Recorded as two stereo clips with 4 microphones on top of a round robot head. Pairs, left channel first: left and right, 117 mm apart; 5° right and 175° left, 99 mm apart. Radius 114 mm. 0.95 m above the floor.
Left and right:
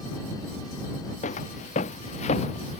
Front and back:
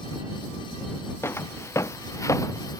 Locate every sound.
1.2 s footsteps: 60° left; by 2.8 s 50° left